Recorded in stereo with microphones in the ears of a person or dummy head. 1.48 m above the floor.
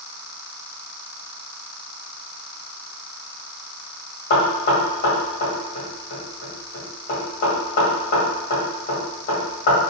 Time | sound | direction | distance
4.3 | knocking | 55° left (ahead or behind) | 1.7 m